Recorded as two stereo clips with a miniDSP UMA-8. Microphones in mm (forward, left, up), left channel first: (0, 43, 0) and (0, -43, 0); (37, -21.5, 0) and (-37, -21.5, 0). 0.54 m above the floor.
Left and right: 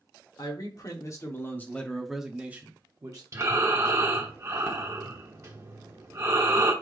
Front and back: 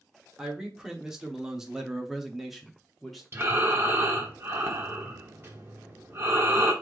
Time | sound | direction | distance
0.4 | a man speaking | 100° left | 1.3 m
3.3 | breathing | 135° right | 1.1 m